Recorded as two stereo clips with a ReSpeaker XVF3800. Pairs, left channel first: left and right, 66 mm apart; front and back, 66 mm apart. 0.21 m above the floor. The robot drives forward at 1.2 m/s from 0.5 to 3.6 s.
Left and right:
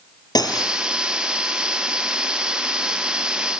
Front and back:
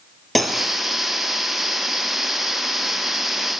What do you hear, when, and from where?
0.3 s cutlery clinking: 90° left, 3 m; by 0.8 s 95° left, 3 m